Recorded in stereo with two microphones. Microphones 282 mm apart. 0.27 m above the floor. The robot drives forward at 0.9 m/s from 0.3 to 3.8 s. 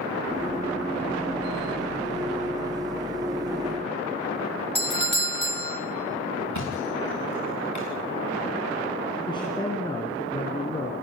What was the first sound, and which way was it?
A doorbell, 40° right (ahead or behind).